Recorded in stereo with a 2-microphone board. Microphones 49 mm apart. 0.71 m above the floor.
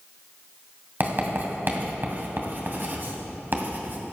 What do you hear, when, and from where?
1.0 s writing: 45° right (ahead or behind), 2 m